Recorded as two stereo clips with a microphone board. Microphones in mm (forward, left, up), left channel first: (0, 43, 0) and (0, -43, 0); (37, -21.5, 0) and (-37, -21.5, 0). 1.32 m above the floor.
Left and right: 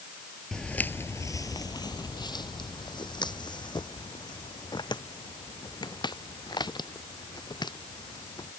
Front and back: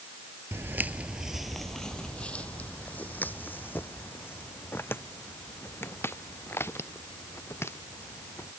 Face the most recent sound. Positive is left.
turn(degrees=55)